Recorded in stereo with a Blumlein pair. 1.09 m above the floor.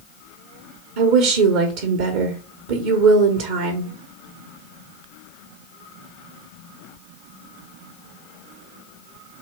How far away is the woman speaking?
About 1.0 m.